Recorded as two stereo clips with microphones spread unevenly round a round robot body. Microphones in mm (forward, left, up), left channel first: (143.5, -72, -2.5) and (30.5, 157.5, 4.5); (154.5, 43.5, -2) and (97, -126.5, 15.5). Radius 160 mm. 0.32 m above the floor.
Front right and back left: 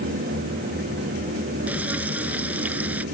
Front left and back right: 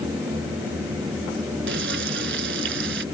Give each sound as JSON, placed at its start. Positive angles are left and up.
{"t": 1.7, "sound": "frying", "azimuth_deg": -160}